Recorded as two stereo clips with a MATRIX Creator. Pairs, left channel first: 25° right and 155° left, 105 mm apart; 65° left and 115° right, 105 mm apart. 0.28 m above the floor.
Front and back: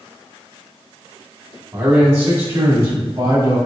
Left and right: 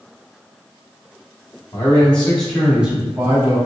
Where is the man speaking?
110° left, 1.6 m; by 3.6 s 155° right, 1.8 m.